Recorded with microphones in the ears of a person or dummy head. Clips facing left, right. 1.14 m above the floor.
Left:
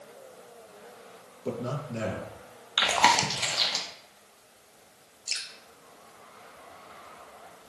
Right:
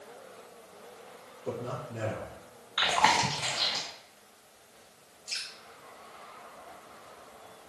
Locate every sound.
1.4 s a man speaking: 60° left (ahead or behind), 1.2 m
2.8 s chewing: 45° left (ahead or behind), 0.6 m
5.3 s dripping: 55° left (ahead or behind), 0.7 m